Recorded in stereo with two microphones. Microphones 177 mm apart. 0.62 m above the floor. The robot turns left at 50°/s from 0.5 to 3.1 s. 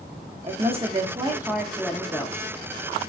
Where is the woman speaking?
115° right, 0.7 m; by 2.4 s 150° left, 0.7 m.